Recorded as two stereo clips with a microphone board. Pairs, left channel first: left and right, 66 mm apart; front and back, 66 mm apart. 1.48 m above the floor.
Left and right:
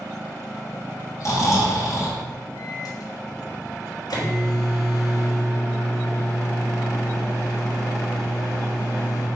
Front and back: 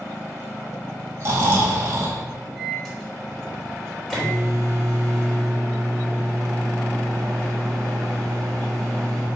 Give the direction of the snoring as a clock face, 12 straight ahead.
8 o'clock.